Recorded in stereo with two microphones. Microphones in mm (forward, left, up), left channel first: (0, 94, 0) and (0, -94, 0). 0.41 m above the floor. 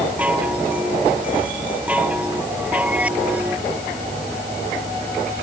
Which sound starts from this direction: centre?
A chime, at 0.2 s.